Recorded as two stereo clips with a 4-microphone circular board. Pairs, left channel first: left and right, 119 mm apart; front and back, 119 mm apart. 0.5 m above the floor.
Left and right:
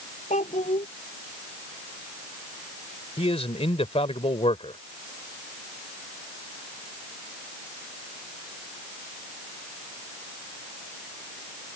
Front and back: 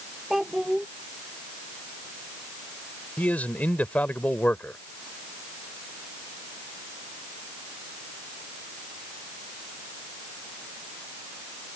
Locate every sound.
0.3 s a child speaking: 95° left
3.2 s a man speaking: 75° left